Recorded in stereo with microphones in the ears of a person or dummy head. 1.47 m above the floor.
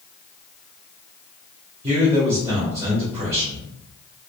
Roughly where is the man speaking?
Right.